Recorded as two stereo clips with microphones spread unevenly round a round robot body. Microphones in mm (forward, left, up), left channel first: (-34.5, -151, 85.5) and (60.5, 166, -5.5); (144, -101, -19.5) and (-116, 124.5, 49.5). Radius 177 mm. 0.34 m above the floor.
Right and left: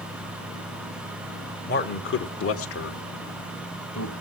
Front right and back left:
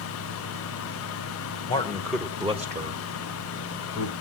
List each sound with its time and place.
1.7 s a man speaking: 45° right, 1.2 m; by 4.1 s 170° right, 2.0 m